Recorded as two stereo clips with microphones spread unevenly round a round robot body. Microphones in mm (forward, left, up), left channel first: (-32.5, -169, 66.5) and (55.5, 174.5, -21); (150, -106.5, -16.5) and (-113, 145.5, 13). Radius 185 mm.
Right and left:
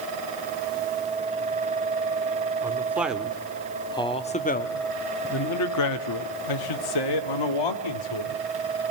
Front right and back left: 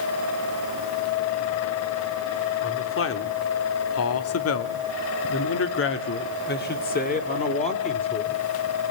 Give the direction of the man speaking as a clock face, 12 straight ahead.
12 o'clock.